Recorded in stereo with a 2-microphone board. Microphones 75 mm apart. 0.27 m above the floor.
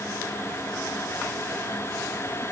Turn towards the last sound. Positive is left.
No sound to turn to.